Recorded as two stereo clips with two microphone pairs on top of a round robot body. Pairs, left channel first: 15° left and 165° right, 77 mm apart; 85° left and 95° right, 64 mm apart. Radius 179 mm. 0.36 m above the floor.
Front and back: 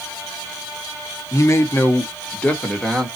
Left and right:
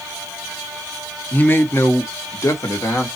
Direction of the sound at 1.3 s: 25° left.